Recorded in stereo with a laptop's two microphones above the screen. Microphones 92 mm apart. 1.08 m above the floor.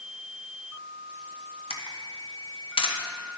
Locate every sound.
1.7 s a camera shutter: 70° left (ahead or behind), 0.9 m